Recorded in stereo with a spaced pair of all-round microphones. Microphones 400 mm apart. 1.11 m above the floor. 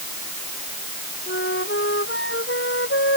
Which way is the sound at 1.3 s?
30° left (ahead or behind).